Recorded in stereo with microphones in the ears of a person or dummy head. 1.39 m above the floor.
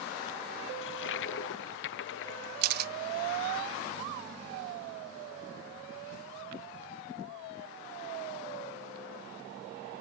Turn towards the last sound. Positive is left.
turn(degrees=-55)  # may be behind; listen again after turning